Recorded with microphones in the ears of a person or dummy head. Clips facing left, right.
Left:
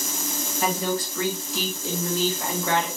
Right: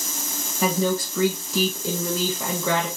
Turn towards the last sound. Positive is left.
turn(degrees=-85)